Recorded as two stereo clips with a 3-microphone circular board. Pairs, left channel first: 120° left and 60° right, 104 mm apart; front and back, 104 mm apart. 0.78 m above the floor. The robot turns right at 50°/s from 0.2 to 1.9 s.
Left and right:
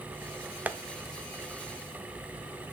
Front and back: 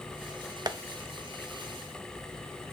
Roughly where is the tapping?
Behind right.